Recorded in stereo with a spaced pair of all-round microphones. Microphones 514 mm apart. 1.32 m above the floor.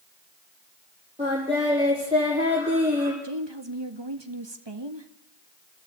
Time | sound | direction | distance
1.2 | singing | 10° right (ahead or behind) | 9 m
3.2 | a woman speaking | 50° right (ahead or behind) | 1.8 m